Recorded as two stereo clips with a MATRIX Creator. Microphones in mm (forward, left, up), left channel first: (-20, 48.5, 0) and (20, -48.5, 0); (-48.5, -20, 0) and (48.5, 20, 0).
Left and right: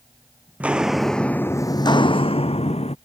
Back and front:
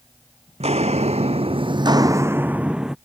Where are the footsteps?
10° left; by 3.0 s 110° left.